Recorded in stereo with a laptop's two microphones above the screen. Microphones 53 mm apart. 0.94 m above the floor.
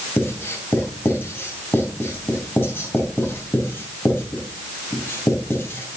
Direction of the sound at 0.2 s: 40° left (ahead or behind).